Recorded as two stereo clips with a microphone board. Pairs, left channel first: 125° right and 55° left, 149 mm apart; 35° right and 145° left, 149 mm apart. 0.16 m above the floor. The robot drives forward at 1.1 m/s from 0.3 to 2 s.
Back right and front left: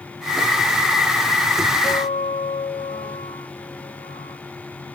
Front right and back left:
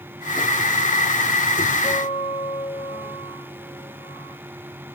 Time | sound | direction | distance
1.8 | a guitar | 85° right | 4 m